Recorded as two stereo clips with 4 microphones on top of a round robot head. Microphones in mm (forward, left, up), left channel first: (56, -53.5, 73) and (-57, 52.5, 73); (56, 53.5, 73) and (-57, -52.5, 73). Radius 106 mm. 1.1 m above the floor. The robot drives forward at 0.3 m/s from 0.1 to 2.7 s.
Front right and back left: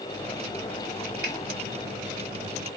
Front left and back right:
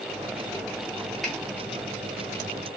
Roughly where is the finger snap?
Behind left.